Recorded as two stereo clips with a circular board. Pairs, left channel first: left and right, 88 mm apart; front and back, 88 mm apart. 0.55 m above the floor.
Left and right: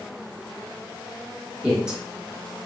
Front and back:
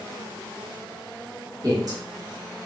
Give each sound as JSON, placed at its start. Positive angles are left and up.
{"t": 1.6, "sound": "a man speaking", "azimuth_deg": -165, "distance_m": 1.2}